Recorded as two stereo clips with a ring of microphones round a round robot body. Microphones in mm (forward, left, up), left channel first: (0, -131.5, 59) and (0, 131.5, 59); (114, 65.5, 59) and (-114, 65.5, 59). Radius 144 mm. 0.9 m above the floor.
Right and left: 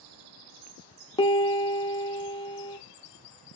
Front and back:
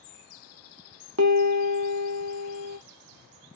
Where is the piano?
160° right, 0.6 m.